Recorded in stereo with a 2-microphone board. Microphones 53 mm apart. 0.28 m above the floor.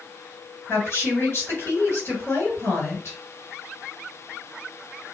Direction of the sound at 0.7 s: 50° left (ahead or behind).